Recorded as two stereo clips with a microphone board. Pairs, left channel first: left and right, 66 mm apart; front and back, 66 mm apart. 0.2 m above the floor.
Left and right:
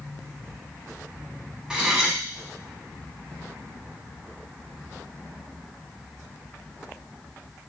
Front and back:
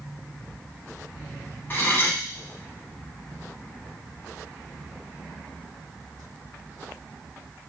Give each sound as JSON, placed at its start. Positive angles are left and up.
{"t": 1.7, "sound": "cutlery clinking", "azimuth_deg": -15, "distance_m": 0.7}